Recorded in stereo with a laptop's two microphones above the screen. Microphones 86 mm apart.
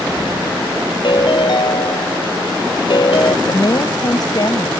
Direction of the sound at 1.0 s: 60° left (ahead or behind).